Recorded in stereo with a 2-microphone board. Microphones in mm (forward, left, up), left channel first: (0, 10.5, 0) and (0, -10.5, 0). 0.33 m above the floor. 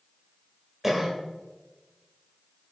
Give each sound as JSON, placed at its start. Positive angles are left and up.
{"t": 0.8, "sound": "a cough", "side_deg": -15, "distance_m": 1.3}